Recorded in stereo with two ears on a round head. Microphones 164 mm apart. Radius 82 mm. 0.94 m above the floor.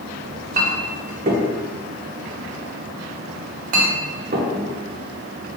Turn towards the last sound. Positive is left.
turn(degrees=-45)  # may be behind; listen again after turning